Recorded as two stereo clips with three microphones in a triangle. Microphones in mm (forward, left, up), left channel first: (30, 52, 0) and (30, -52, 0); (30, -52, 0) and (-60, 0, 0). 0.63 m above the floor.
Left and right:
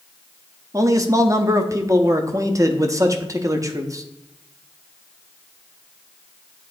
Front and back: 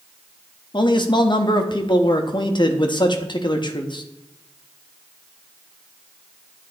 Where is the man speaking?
45° right, 0.8 m.